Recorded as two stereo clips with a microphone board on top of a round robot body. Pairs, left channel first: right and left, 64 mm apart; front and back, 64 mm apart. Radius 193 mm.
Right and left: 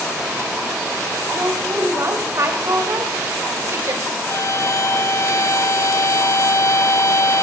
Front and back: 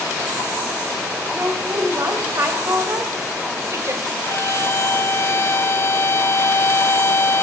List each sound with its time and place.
1.3 s a woman speaking: 135° left, 5 m
4.2 s a violin: 50° right, 0.8 m